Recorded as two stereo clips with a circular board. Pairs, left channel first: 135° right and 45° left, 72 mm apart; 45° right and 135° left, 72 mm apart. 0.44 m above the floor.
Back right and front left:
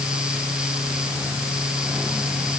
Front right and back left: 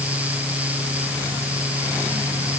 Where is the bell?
I don't hear a bell.